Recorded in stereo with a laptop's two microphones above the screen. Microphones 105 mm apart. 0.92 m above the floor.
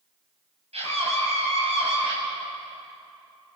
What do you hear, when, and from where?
0.7 s a scream: 75° right (ahead or behind), 6.5 m; by 2.1 s 65° right (ahead or behind), 7 m